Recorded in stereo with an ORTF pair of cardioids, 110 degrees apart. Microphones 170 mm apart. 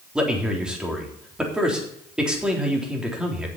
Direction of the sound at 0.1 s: 5° right.